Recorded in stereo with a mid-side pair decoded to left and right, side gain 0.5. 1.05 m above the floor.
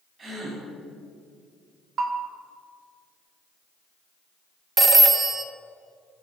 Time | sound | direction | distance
0.2 | a gasp | 40° right | 3 m
2.0 | a bell | 55° right | 0.9 m
4.8 | a phone ringing | 30° right | 0.5 m